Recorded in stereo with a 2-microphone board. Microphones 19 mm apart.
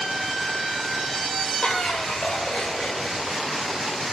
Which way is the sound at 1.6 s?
85° left.